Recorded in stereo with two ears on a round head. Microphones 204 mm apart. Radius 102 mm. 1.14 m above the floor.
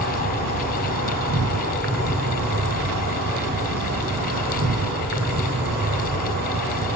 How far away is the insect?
About 5.5 m.